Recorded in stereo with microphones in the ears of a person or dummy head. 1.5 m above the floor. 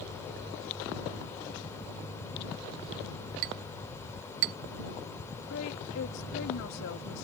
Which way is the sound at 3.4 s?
45° right (ahead or behind).